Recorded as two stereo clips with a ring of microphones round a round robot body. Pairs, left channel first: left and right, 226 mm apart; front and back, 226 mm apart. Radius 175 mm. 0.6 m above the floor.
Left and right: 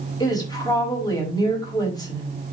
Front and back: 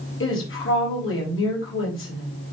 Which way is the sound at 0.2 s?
20° left.